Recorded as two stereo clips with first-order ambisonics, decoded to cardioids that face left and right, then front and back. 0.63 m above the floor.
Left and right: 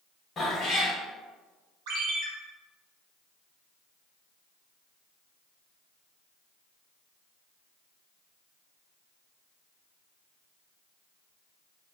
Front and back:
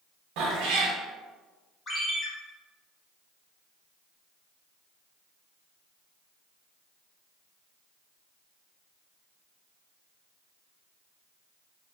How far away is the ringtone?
About 0.7 m.